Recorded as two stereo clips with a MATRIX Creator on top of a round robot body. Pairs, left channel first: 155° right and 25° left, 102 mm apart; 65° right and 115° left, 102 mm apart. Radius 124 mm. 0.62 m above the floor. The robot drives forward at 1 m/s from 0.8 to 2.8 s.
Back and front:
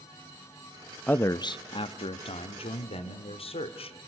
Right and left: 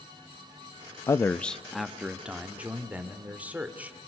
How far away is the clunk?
I don't hear a clunk.